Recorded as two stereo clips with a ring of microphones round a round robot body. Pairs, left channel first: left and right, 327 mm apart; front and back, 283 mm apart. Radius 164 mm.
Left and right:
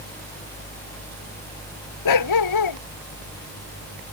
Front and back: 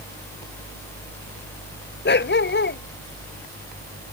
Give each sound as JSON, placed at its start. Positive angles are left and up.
{"t": 2.0, "sound": "a dog barking", "azimuth_deg": 55}